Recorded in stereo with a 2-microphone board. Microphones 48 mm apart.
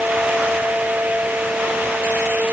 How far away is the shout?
No shout in this recording.